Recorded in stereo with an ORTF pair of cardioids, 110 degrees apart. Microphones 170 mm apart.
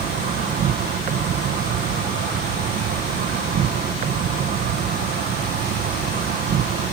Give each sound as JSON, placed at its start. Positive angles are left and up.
{"t": 0.0, "sound": "an insect", "azimuth_deg": -60}